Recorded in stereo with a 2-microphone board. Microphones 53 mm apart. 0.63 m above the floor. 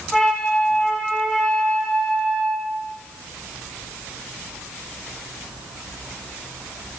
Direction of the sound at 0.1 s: 5° right (ahead or behind).